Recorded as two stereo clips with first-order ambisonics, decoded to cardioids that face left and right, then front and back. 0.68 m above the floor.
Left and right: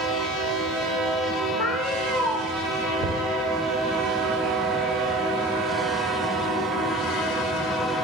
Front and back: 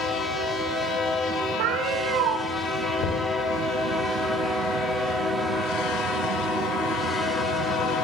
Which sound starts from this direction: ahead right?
Knocking, at 3.0 s.